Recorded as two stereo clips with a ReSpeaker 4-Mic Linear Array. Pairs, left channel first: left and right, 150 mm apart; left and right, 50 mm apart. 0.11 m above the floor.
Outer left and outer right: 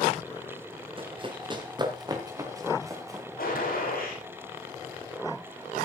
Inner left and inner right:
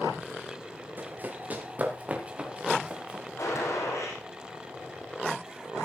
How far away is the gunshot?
About 7.5 m.